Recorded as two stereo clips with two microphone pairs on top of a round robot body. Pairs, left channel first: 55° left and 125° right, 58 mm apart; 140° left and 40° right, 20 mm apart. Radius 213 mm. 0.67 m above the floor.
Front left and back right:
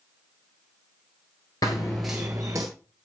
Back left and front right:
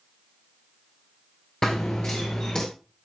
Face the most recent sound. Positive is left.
turn(degrees=-170)